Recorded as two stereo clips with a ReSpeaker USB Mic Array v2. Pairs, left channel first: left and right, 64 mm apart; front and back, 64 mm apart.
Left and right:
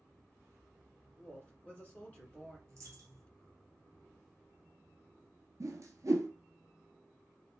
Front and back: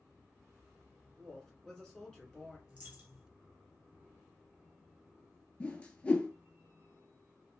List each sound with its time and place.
1.2 s a woman speaking: 65° left, 1.7 m
2.7 s a dropped coin: 120° right, 1.3 m
5.6 s a whoosh: 70° right, 0.6 m